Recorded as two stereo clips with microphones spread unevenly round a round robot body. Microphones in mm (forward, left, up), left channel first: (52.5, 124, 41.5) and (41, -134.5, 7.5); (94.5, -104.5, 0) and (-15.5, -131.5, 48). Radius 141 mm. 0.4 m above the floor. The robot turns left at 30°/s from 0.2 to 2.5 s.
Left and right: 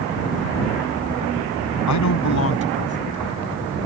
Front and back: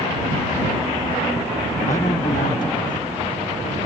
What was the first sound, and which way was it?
A man speaking, 80° left.